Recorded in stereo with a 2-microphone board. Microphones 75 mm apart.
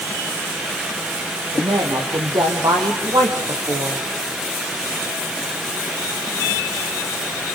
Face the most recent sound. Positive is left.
turn(degrees=-65)  # may be behind; listen again after turning